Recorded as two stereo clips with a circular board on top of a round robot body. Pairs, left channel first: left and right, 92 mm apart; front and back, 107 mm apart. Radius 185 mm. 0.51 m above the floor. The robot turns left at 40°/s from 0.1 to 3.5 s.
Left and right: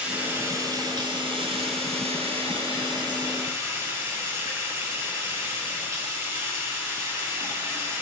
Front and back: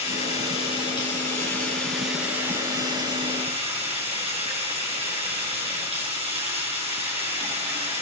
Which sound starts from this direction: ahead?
Running water, at 0.0 s.